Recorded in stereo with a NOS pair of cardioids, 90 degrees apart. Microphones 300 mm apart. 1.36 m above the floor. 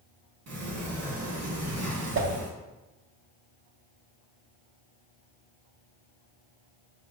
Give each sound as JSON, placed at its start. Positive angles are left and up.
{"t": 0.5, "sound": "a sliding door", "azimuth_deg": -65, "distance_m": 1.8}
{"t": 2.1, "sound": "a whoosh", "azimuth_deg": -45, "distance_m": 0.9}